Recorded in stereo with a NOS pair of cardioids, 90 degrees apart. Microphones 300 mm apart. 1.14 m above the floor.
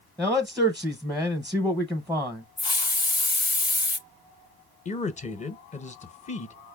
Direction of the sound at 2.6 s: 15° left.